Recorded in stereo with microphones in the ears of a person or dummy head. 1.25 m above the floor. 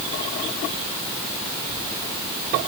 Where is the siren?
No siren in this recording.